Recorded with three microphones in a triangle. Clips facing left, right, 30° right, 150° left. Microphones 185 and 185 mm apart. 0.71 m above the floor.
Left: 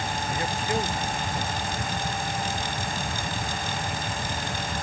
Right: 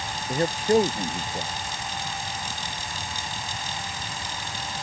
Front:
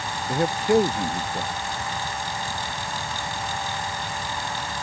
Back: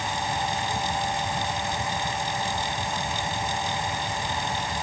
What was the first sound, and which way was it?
A man speaking, 40° right.